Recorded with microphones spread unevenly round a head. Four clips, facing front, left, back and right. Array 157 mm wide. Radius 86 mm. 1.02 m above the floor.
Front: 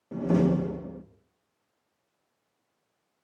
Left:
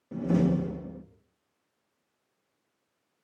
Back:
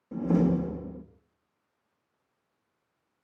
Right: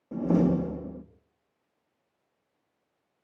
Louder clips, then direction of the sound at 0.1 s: Right 2 dB, front 1 dB; 50° right.